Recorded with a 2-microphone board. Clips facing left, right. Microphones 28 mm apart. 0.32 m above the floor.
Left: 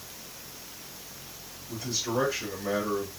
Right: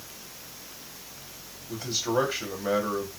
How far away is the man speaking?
About 2 m.